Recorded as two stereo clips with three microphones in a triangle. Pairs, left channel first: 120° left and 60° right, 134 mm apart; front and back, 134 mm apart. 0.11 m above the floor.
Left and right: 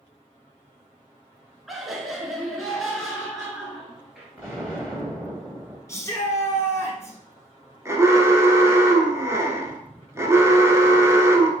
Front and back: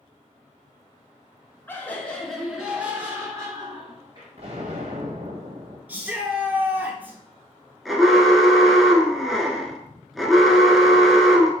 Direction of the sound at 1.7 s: 30° left.